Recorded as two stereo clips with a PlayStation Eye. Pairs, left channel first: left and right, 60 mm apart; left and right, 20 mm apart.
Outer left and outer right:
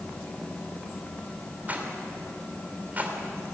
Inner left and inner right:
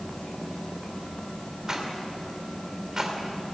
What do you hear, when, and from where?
1.7 s a rattle: 30° right (ahead or behind), 3 m